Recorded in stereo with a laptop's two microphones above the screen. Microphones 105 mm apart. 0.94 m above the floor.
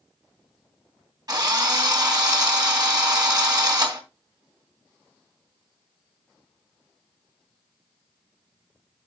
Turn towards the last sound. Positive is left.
turn(degrees=-40)  # may be behind; listen again after turning